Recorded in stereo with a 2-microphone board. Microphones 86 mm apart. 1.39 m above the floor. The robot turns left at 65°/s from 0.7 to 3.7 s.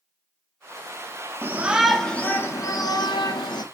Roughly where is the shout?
Behind right.